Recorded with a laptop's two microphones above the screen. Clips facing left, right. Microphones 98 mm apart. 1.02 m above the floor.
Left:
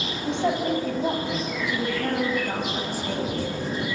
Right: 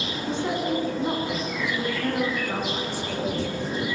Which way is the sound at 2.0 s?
50° left (ahead or behind).